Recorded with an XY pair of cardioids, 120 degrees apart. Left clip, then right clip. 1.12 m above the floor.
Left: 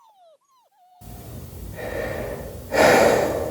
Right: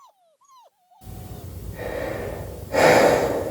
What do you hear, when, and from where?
1.0 s breathing: 30° left, 1.5 m